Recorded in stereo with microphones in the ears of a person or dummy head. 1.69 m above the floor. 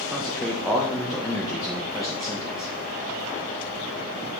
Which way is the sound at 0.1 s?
5° left (ahead or behind).